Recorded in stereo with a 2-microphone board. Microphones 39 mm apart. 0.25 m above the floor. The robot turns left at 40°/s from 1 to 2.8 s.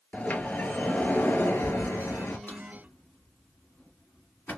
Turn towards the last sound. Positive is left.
turn(degrees=60)  # may be behind; listen again after turning